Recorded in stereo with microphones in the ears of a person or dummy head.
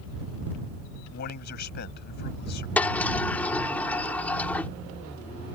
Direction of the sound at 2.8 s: 10° left (ahead or behind).